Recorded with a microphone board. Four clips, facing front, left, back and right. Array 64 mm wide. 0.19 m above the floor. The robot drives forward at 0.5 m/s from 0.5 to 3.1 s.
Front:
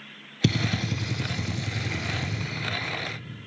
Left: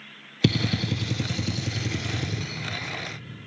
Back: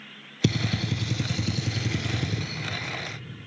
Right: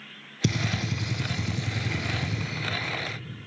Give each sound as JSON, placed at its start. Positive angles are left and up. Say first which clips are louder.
{"t": 0.4, "sound": "a gunshot", "louder": "left 4 dB, even", "azimuth_deg": 85, "distance_m": 0.5}